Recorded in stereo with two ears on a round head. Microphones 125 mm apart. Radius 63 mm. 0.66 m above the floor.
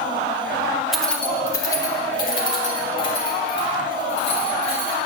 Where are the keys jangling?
5° right (ahead or behind), 0.7 m; by 5.0 s 45° left (ahead or behind), 3.5 m.